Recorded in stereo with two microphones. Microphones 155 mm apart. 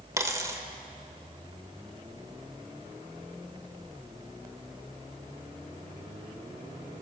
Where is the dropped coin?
20° right (ahead or behind), 0.9 m.